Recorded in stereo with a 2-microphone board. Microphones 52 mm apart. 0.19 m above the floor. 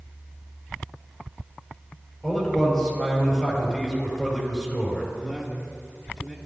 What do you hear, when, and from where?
2.2 s a man speaking: 15° left (ahead or behind), 4 m
5.2 s a man speaking: 5° left (ahead or behind), 3 m